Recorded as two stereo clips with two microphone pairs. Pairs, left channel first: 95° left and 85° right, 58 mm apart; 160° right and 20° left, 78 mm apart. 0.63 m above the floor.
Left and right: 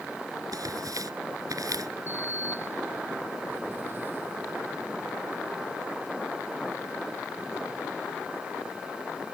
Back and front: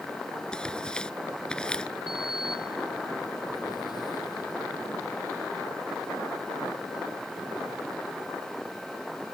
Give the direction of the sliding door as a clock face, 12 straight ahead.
5 o'clock.